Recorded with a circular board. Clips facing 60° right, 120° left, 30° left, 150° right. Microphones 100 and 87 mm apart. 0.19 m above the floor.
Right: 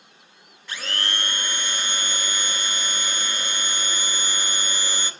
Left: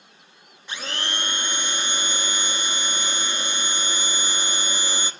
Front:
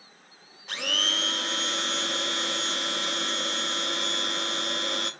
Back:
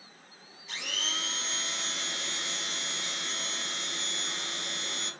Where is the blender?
50° left, 0.6 m.